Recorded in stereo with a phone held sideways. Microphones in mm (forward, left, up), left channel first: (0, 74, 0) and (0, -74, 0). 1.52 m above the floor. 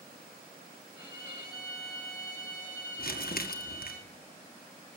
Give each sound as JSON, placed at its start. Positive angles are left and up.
{"t": 0.9, "sound": "a violin", "side_deg": -15, "distance_m": 8.0}
{"t": 3.0, "sound": "crumpling", "side_deg": 70, "distance_m": 1.5}